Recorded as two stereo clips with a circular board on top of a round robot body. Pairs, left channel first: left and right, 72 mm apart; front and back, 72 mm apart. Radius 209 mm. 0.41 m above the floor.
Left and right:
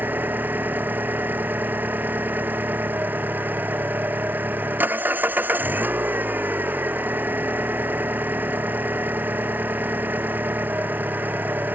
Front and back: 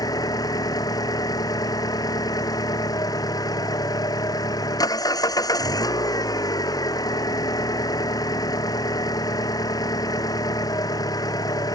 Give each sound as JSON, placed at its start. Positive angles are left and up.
{"t": 0.0, "sound": "an engine running", "azimuth_deg": -30}